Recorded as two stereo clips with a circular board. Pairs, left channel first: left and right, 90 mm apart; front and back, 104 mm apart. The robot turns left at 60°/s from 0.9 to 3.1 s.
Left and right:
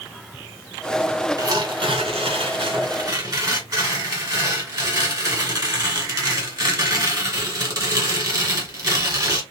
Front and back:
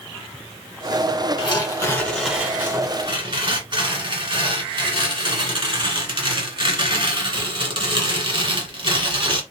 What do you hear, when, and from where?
1.4 s tearing paper: 40° right, 2.0 m; by 9.4 s 140° right, 2.0 m